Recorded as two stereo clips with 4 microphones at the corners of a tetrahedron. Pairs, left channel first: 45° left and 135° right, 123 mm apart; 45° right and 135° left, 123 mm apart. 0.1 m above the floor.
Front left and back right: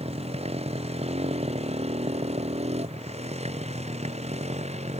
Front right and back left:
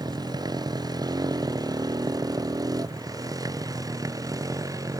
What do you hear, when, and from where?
0.0 s a motorcycle: 170° right; by 5.0 s 160° right